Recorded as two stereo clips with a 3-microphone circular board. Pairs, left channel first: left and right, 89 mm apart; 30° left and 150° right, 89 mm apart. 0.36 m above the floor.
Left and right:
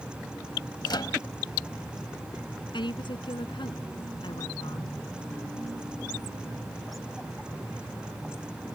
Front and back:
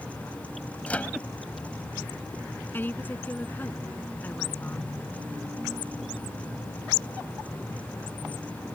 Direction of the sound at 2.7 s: 95° left.